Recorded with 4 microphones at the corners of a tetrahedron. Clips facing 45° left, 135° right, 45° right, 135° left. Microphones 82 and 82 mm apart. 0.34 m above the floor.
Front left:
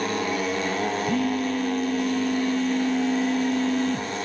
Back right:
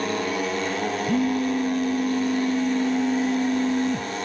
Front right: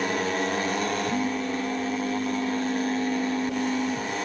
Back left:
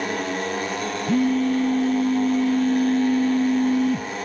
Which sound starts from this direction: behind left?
A phone buzzing, at 1.1 s.